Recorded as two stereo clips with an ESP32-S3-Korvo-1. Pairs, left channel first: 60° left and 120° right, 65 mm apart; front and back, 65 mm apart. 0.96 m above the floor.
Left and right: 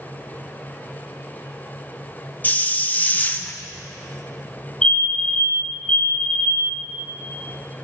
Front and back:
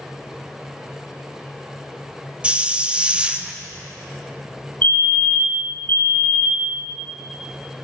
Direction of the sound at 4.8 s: Straight ahead.